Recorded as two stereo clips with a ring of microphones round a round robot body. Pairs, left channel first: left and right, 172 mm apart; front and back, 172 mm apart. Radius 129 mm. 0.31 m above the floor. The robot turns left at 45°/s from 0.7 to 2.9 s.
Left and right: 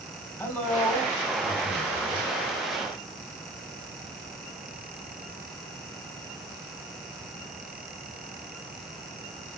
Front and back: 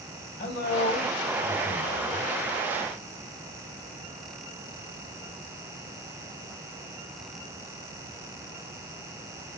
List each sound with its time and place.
0.4 s a man speaking: 15° left, 1.9 m; by 2.3 s 55° right, 1.9 m